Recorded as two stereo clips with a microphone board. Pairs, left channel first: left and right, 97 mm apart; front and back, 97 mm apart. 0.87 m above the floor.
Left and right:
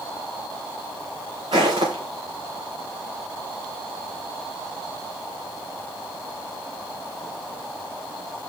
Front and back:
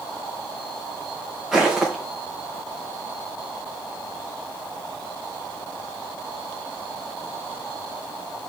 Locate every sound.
1.5 s footsteps: 100° right, 5.5 m